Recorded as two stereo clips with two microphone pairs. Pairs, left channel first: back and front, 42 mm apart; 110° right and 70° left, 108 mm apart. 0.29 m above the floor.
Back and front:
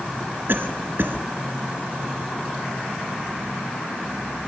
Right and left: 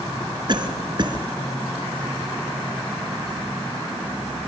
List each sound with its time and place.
0.5 s a cough: 25° left, 3 m